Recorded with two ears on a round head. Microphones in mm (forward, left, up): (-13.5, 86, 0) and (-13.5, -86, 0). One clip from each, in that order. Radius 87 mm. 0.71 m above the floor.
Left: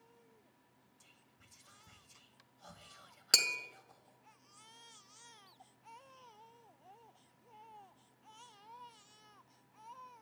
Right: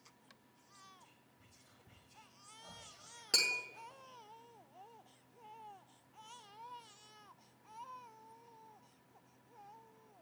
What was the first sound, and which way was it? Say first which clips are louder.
Whispering: right 1 dB; 50° left (ahead or behind).